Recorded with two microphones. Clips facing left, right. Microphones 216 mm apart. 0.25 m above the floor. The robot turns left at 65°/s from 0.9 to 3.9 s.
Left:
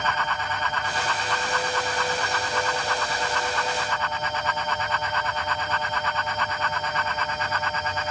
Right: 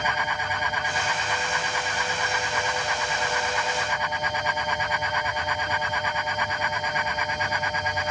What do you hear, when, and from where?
Only background noise.